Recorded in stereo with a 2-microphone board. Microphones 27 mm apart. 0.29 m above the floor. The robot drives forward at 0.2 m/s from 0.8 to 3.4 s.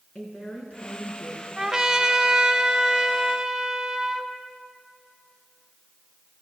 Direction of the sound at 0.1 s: 45° left (ahead or behind).